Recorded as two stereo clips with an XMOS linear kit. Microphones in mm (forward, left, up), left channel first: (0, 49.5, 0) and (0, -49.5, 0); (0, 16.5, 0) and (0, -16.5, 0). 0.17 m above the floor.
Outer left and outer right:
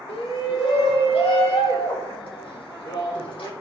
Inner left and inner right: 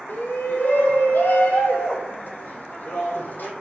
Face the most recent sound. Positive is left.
turn(degrees=60)  # may be behind; listen again after turning